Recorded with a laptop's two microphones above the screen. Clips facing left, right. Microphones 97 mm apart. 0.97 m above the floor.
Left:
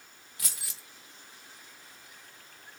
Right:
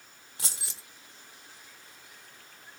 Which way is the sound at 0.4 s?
30° right (ahead or behind).